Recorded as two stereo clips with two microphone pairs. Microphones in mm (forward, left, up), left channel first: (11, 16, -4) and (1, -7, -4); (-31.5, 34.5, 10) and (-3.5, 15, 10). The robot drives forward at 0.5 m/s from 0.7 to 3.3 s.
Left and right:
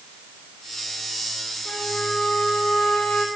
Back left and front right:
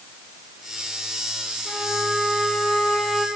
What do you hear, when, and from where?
1.6 s a trumpet: 45° left, 5 m; by 3.3 s 50° left, 4.5 m